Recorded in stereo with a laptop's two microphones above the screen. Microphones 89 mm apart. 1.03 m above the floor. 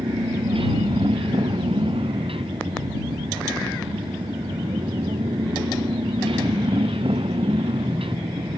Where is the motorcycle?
90° right.